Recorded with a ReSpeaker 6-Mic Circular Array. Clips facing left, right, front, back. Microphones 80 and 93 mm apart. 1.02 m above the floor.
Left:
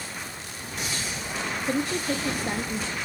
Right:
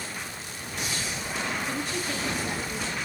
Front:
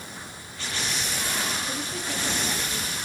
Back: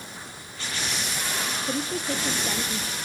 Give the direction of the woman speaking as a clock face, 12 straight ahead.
8 o'clock.